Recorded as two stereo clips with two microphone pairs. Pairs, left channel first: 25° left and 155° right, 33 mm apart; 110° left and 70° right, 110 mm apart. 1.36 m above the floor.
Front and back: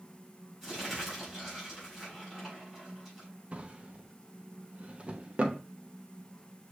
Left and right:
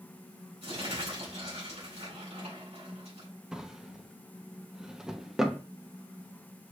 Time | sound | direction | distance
0.6 | crumpling | 75° right | 4 m
3.5 | a drawer | 155° right | 0.6 m